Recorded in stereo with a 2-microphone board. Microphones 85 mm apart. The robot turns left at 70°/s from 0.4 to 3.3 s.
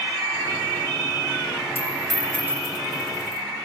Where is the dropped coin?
25° left (ahead or behind), 4 m; by 3.4 s 80° right, 4 m.